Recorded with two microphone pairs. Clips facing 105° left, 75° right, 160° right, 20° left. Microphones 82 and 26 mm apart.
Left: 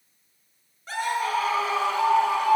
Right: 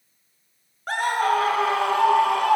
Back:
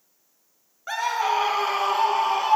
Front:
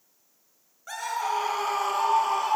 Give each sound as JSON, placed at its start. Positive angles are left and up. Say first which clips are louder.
{"t": 0.9, "sound": "a scream", "louder": "right 5 dB, back 5 dB", "azimuth_deg": -100, "distance_m": 4.5}